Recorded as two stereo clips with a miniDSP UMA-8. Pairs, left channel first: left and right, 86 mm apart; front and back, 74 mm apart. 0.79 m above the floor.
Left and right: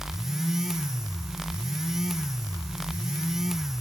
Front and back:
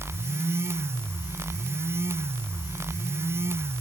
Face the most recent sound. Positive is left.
No sound to turn to.